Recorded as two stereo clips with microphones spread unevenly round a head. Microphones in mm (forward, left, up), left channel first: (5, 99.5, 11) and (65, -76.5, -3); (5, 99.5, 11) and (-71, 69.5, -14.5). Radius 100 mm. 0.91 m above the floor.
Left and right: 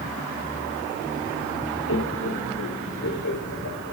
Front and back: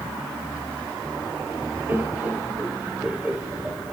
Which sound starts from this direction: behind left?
Laughter, at 1.9 s.